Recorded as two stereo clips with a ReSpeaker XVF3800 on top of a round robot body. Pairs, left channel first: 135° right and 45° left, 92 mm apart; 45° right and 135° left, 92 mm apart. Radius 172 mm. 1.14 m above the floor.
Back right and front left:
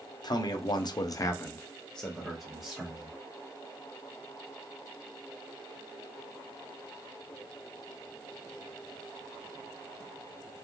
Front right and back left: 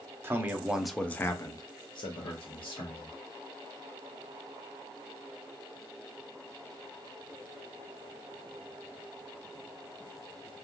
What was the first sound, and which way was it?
A man speaking, 165° right.